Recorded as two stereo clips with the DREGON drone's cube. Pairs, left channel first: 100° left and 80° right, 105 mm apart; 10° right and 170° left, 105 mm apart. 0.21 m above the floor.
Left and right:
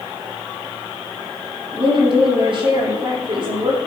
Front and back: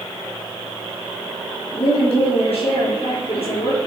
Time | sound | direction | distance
1.7 | a woman speaking | 40° right | 7.5 m